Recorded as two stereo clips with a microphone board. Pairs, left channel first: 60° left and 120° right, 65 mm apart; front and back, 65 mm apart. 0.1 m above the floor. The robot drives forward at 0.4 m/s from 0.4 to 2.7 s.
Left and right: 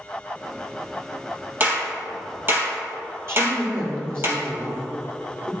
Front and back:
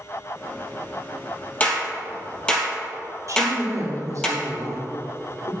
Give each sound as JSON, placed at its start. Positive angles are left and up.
{"t": 1.6, "sound": "a clap", "azimuth_deg": -65, "distance_m": 2.5}
{"t": 3.3, "sound": "a woman speaking", "azimuth_deg": -165, "distance_m": 2.5}